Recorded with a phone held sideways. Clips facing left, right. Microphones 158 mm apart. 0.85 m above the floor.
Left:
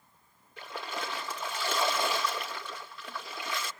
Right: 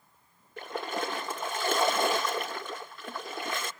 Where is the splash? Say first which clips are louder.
Right 5 dB; 50° right (ahead or behind), 1.2 m.